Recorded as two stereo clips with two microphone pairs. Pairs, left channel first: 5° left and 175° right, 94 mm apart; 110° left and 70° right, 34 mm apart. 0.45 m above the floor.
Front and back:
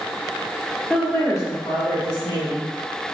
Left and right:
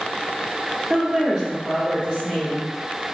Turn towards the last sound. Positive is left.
turn(degrees=-15)